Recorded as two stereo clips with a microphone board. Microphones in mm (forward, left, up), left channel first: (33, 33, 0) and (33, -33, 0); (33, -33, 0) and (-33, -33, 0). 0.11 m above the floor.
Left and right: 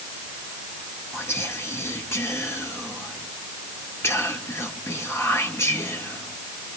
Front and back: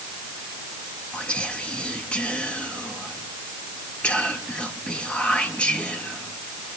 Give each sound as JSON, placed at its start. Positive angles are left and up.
{"t": 1.1, "sound": "whispering", "azimuth_deg": 65, "distance_m": 1.9}